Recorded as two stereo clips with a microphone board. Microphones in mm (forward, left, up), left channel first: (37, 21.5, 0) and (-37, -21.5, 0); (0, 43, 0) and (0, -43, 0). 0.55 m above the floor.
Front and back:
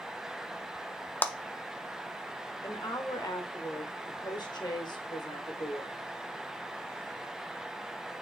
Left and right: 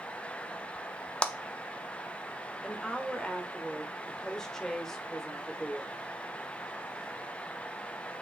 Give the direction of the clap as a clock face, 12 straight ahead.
11 o'clock.